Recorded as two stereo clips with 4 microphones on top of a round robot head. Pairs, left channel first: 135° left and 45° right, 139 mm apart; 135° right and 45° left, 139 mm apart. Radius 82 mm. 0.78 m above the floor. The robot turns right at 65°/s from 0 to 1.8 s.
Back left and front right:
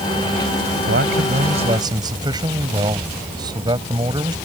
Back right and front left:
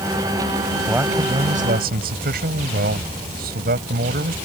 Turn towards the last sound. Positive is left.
turn(degrees=20)